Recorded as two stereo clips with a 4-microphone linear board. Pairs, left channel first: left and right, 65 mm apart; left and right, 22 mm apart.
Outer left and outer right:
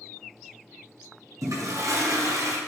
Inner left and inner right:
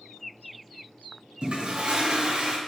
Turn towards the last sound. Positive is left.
turn(degrees=-50)  # may be behind; listen again after turning